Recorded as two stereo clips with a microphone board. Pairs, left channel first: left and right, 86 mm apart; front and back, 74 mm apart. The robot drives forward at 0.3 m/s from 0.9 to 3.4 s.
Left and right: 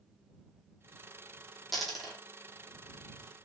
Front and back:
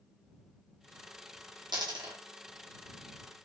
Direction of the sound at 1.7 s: 175° left.